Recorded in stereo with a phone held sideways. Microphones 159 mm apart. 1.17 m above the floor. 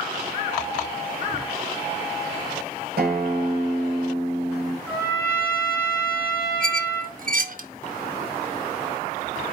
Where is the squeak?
60° right (ahead or behind), 0.7 m.